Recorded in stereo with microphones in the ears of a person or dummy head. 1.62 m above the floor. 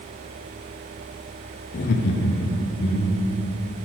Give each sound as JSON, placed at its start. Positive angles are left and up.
{"t": 1.7, "sound": "laughter", "side_deg": 45, "distance_m": 0.5}